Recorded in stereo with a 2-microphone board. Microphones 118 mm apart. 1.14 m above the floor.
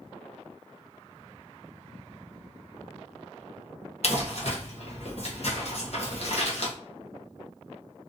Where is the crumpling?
60° left (ahead or behind), 1.0 m.